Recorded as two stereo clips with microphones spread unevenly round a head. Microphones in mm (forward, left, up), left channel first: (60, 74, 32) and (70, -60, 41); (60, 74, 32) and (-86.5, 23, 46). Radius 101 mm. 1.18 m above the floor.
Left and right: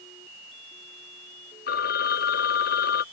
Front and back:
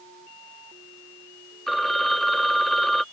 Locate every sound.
1.7 s a phone ringing: 110° left